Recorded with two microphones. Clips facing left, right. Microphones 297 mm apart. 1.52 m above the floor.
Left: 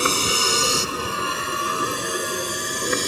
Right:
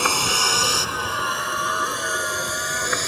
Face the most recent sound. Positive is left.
turn(degrees=40)  # may be behind; listen again after turning